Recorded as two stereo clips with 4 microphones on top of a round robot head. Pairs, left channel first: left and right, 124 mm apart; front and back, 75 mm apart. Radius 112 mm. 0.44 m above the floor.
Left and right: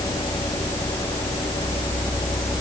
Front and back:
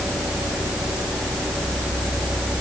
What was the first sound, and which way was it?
Only background noise.